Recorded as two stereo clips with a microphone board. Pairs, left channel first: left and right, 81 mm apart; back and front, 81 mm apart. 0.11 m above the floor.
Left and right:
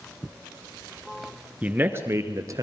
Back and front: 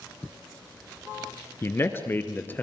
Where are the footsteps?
No footsteps in this recording.